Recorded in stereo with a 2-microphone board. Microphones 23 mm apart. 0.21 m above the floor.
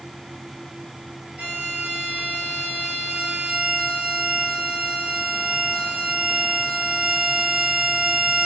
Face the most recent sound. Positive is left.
turn(degrees=-75)  # may be behind; listen again after turning